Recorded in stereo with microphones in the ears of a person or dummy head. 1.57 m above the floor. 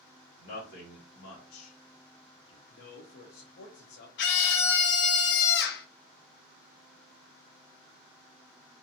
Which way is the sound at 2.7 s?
60° left (ahead or behind).